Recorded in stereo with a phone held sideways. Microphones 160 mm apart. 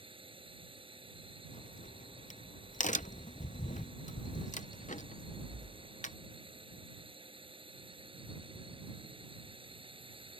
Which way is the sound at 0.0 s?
35° right (ahead or behind).